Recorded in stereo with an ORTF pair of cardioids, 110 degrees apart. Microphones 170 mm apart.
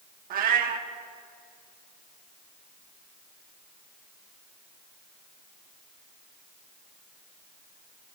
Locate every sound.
0.3 s a cat meowing: 60° right, 1.4 m